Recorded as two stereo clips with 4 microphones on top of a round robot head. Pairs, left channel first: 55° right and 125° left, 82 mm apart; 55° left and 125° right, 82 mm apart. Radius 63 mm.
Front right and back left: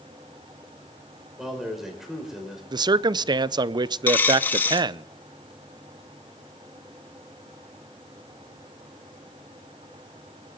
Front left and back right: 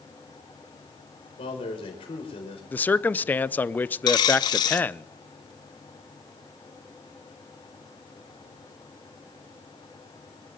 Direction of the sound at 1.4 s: 40° left.